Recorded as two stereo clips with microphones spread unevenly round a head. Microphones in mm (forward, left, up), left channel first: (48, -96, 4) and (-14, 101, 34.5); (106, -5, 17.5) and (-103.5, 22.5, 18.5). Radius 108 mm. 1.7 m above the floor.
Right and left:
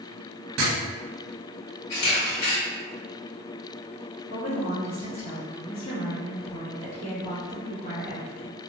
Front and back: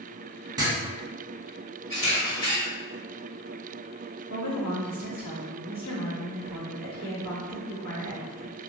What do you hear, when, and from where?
0.6 s writing: 100° left, 0.7 m
1.9 s a camera shutter: 40° right, 1.7 m
4.3 s a woman speaking: 15° right, 1.5 m